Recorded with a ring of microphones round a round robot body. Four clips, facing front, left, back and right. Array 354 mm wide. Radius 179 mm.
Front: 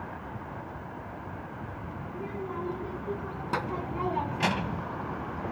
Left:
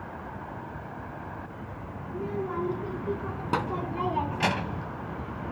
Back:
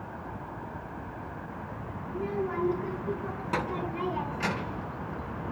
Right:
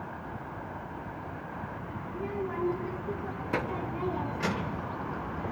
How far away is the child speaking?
About 5 m.